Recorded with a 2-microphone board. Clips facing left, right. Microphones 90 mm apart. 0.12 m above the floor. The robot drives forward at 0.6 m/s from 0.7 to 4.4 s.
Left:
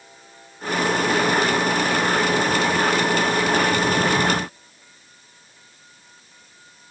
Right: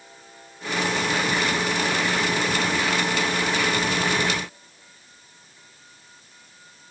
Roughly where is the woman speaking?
No woman speaking in this recording.